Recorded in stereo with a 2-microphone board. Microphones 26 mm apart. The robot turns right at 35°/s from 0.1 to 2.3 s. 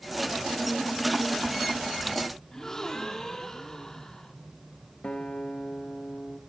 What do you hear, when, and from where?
2.5 s a gasp: 15° left (ahead or behind), 3.5 m
5.0 s a guitar: 40° left (ahead or behind), 3 m